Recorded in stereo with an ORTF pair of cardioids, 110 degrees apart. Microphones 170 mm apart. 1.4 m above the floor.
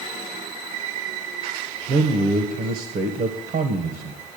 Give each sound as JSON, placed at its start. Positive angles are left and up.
{"t": 1.9, "sound": "a man speaking", "azimuth_deg": -65, "distance_m": 1.4}